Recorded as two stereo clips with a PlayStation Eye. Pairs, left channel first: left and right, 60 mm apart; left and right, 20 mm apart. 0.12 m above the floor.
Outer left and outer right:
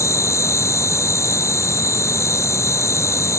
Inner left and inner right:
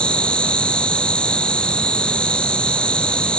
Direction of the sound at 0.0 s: 55° left (ahead or behind).